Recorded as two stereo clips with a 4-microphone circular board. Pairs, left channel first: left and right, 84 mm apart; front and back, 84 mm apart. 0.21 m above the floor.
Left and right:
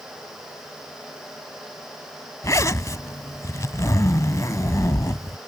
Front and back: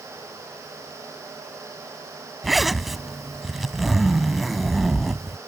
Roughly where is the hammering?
I don't hear hammering.